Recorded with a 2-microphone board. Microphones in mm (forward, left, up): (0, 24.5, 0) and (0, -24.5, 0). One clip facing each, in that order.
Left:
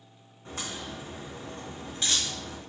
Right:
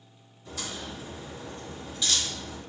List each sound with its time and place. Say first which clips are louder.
0.5 s a crack: even; 40° left (ahead or behind), 4 m